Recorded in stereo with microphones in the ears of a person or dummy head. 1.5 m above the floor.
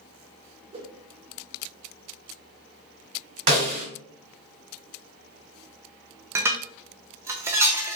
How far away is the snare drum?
About 2.5 m.